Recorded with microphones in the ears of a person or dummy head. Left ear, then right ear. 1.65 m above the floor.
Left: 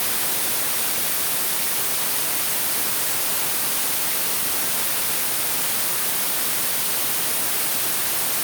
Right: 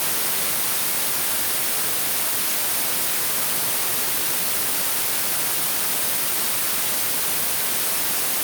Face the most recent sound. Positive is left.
No sound to turn to.